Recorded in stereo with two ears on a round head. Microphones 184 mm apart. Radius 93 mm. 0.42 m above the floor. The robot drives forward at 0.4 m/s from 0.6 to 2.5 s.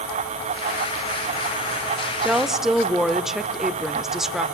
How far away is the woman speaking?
About 0.8 m.